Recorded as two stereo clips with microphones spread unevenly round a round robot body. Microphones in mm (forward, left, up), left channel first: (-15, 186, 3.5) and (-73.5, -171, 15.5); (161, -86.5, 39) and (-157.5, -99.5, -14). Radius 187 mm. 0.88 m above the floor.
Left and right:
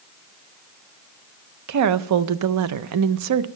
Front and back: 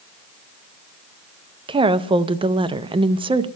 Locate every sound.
1.7 s a woman speaking: 120° right, 0.5 m